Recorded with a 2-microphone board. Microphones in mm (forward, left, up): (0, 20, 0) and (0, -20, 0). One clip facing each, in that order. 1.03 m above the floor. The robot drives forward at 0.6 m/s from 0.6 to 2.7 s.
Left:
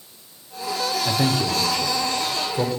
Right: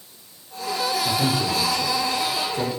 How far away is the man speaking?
About 4 m.